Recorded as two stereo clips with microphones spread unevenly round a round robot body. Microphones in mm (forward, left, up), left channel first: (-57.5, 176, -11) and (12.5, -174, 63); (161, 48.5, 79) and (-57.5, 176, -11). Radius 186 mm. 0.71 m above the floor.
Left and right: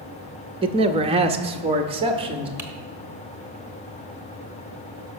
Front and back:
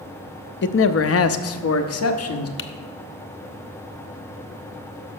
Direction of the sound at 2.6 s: 5° left.